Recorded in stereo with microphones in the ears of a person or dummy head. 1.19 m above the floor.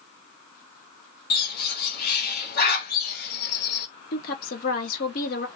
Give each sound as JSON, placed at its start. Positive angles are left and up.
{"t": 1.3, "sound": "a bird", "side_deg": 55, "distance_m": 1.2}
{"t": 4.1, "sound": "a woman speaking", "side_deg": 50, "distance_m": 1.1}